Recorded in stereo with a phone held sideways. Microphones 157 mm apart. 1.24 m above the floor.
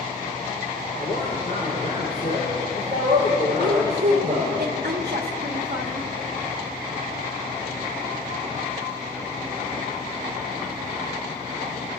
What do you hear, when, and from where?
1.0 s a man speaking: 55° left (ahead or behind), 5 m
3.6 s a woman speaking: 70° right (ahead or behind), 1.1 m